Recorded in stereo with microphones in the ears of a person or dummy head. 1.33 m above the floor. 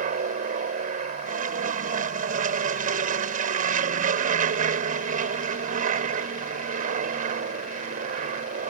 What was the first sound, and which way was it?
An aircraft, 45° right (ahead or behind).